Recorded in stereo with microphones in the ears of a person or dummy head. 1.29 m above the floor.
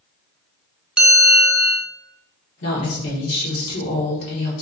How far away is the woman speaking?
About 1.4 m.